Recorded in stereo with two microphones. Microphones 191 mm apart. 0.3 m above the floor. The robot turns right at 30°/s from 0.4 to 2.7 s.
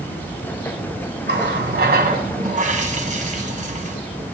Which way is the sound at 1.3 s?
90° right.